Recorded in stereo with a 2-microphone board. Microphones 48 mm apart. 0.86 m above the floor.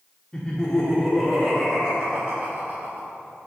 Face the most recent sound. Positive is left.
turn(degrees=-50)  # may be behind; listen again after turning